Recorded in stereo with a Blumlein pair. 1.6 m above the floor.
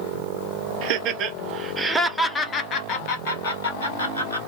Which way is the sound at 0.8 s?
45° right.